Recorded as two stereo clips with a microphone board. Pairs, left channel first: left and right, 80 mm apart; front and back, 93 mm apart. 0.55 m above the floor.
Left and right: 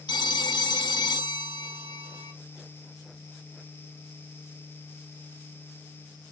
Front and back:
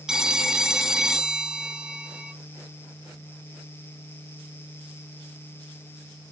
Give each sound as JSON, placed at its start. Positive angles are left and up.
{"t": 0.1, "sound": "a phone ringing", "azimuth_deg": 95, "distance_m": 0.9}